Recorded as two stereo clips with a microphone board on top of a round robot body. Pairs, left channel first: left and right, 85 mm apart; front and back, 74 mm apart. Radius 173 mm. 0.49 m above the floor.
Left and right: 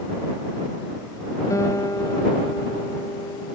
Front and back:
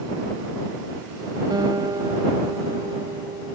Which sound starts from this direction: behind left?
A guitar, at 1.5 s.